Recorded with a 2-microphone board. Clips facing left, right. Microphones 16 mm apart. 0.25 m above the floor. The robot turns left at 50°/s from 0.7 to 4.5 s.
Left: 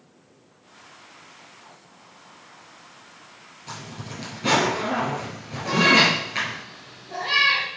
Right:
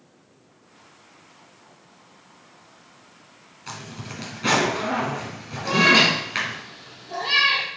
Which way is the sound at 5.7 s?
50° right (ahead or behind).